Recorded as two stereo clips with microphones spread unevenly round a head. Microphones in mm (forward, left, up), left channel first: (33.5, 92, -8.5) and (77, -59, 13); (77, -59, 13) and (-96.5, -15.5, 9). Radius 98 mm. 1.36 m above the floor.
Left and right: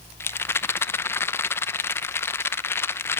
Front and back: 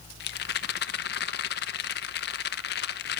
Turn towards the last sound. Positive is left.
turn(degrees=25)